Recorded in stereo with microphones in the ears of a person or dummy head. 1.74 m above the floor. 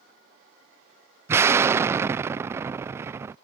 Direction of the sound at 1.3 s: 20° right (ahead or behind).